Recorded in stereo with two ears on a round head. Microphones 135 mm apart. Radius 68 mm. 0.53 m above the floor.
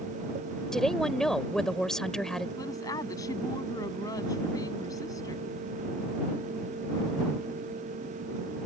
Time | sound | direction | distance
0.7 | a woman speaking | 5° left (ahead or behind) | ?
2.6 | a woman speaking | 25° left (ahead or behind) | ?